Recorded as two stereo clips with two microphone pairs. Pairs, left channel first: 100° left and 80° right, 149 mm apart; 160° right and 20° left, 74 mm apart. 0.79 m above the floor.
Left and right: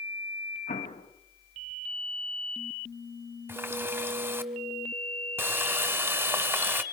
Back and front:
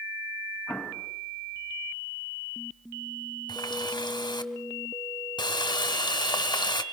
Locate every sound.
0.7 s an explosion: 110° left, 3.5 m
3.5 s a running tap: 155° right, 1.7 m